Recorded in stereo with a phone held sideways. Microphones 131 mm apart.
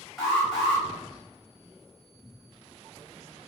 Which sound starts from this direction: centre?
An alarm, at 0.2 s.